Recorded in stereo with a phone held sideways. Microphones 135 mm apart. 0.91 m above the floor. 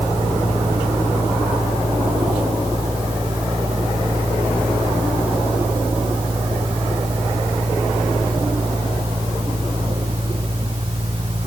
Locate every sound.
0.0 s a fan: 40° right (ahead or behind)